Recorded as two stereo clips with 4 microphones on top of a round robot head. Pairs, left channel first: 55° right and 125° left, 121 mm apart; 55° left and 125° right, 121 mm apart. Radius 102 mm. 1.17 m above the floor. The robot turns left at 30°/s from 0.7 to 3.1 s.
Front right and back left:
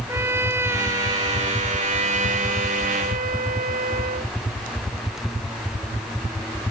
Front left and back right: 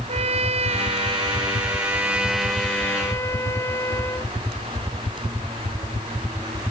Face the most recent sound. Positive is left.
turn(degrees=125)